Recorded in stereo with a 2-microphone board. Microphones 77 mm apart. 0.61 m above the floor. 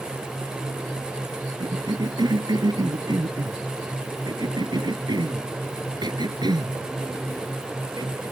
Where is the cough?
70° right (ahead or behind).